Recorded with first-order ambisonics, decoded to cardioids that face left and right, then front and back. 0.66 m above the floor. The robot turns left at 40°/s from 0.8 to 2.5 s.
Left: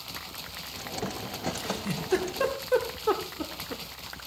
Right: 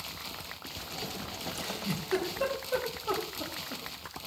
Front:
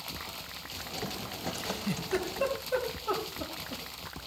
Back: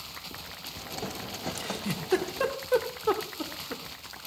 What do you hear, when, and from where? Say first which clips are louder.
1.6 s a giggle: left 3 dB, back 1 dB; 175° left, 2 m; by 3.8 s 140° left, 2 m